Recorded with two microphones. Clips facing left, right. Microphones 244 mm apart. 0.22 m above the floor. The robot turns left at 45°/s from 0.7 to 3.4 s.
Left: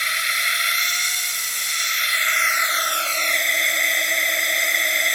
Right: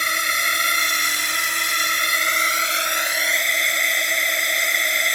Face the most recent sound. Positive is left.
turn(degrees=180)